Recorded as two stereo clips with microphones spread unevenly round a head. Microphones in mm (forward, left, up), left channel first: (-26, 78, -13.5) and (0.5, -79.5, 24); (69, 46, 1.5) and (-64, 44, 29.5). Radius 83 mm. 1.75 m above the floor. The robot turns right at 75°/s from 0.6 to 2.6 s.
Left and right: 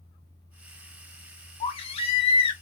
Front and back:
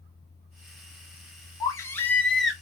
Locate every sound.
1.6 s a baby crying: 55° left, 0.7 m; by 2.5 s 125° left, 0.7 m